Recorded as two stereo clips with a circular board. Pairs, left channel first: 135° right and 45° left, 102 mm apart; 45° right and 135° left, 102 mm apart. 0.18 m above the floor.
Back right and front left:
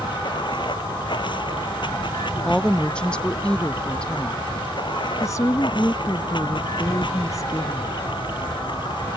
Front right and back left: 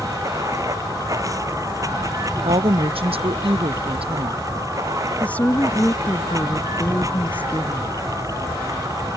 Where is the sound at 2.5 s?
145° left.